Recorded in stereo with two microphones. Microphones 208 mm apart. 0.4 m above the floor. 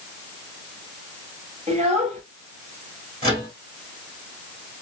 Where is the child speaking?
35° right (ahead or behind), 1.2 m.